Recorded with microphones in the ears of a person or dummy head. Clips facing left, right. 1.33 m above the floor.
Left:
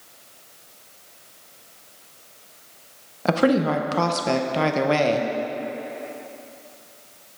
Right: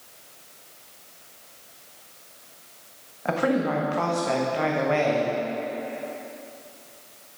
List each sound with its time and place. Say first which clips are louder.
3.2 s a woman speaking: left 4 dB; 60° left (ahead or behind), 0.7 m